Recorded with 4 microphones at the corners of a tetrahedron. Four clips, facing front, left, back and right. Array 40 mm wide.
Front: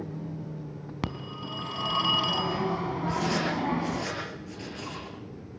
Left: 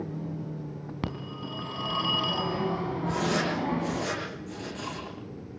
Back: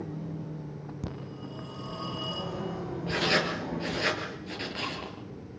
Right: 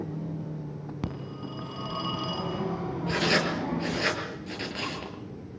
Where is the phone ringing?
15° left, 3 m.